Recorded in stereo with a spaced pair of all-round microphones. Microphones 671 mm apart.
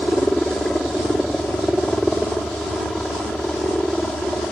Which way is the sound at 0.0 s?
Centre (ahead or behind).